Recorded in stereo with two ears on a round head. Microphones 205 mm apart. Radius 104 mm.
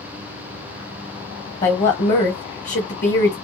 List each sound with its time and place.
1.6 s a woman speaking: 35° left (ahead or behind), 0.8 m